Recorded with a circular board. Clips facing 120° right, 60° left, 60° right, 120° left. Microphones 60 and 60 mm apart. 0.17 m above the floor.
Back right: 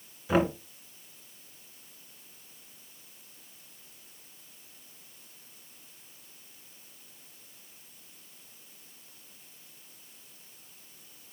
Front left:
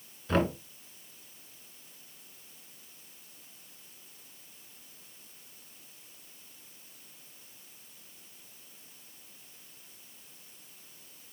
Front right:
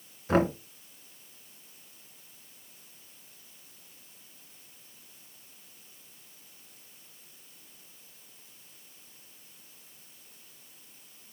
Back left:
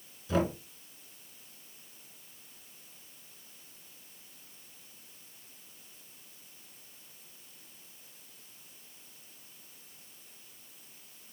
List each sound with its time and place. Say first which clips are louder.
0.3 s knocking: back right 2 dB, front right 5 dB; 40° right, 1.2 m